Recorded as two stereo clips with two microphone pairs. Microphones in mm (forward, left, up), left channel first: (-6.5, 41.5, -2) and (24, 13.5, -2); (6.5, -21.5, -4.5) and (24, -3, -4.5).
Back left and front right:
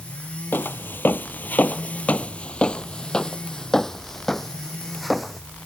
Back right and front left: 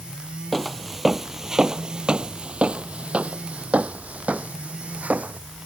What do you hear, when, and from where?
0.5 s footsteps: 140° left; by 5.4 s 50° left